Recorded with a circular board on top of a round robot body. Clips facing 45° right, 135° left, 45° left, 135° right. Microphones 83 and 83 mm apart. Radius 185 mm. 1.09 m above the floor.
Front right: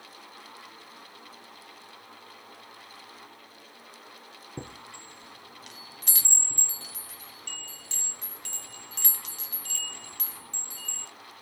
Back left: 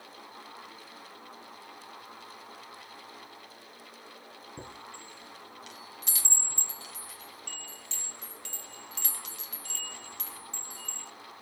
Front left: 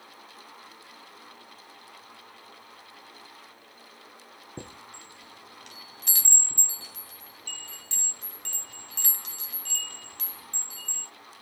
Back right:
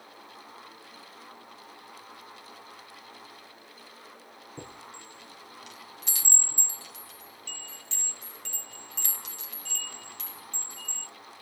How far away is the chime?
About 0.8 m.